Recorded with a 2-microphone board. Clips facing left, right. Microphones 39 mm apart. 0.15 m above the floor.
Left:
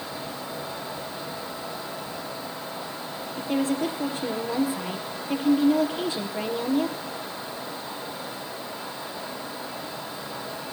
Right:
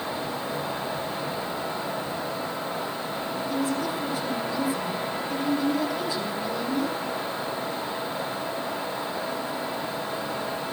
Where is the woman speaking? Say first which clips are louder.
Left 3 dB; 50° left (ahead or behind), 3.5 m.